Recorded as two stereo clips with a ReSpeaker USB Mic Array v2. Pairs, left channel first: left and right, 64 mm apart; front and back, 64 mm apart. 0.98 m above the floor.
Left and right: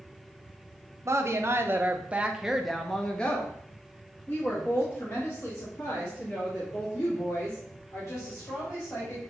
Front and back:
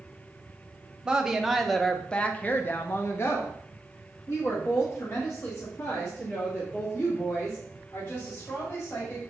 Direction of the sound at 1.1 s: 105° right.